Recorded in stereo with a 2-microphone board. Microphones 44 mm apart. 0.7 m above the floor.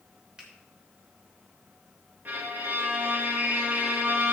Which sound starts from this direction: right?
A violin, at 2.2 s.